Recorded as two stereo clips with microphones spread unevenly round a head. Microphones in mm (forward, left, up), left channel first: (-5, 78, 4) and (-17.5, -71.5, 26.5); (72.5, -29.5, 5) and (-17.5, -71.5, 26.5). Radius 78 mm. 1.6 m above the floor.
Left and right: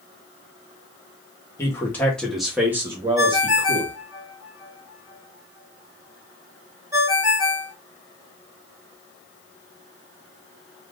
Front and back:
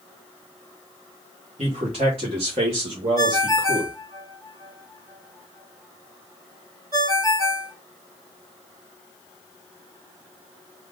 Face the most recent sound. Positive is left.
turn(degrees=-145)